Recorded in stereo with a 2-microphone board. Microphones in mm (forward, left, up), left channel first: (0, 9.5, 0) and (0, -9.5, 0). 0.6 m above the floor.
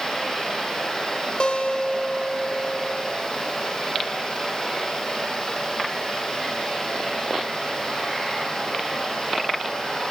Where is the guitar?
50° left (ahead or behind), 1.2 m.